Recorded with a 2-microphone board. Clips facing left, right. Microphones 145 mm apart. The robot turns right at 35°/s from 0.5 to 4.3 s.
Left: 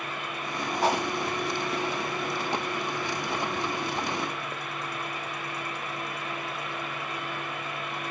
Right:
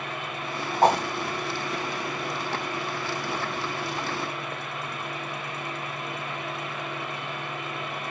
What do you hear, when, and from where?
0.8 s a whoosh: 45° right (ahead or behind), 1.5 m; by 1.0 s 55° right (ahead or behind), 1.5 m